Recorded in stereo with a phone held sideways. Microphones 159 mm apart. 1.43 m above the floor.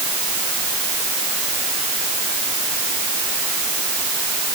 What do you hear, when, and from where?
Only background noise.